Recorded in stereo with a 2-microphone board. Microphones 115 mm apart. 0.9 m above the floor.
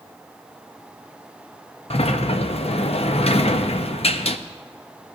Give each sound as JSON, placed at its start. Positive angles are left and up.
{"t": 1.9, "sound": "a sliding door", "side_deg": 60, "distance_m": 0.6}